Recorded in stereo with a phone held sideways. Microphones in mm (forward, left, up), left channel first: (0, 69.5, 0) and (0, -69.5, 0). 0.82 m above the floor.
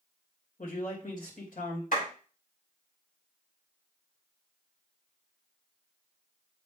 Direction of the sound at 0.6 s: 80° left.